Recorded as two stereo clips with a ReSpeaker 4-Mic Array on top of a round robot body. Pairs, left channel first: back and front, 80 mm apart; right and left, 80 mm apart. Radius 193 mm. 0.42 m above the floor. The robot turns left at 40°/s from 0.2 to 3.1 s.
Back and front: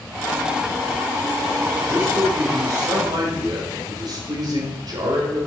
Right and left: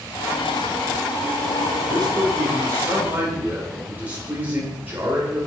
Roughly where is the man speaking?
Left.